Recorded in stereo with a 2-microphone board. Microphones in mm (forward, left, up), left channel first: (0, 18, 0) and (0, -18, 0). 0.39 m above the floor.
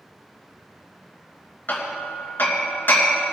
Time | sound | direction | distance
1.7 | hammering | 55° left (ahead or behind) | 3 m